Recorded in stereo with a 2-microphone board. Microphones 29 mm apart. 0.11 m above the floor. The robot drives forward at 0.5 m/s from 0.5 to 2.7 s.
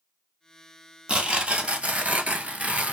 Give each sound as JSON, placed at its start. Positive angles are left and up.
{"t": 1.1, "sound": "tearing paper", "side_deg": -35, "distance_m": 0.9}